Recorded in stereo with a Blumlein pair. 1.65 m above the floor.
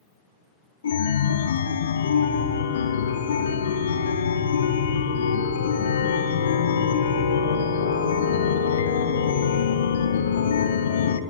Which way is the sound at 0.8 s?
65° left.